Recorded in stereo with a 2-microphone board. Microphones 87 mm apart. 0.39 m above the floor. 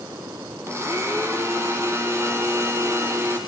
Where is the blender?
30° right (ahead or behind), 3.5 m.